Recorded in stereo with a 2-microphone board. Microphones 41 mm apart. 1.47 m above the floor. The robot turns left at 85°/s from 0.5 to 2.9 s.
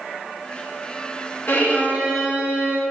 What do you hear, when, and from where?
1.5 s a violin: 65° left, 2.5 m; by 2.8 s 50° right, 2.5 m